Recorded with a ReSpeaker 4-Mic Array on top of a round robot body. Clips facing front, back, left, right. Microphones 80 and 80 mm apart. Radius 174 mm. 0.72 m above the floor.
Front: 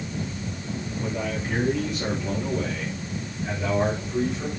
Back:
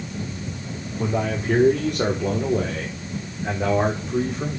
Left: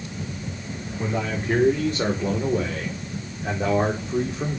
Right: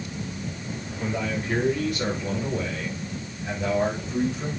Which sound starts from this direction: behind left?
A man speaking, at 1.0 s.